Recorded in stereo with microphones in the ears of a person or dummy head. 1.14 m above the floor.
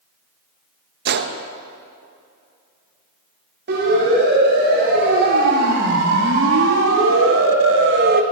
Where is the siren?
55° right (ahead or behind), 6 m; by 8.2 s 45° right (ahead or behind), 1.1 m.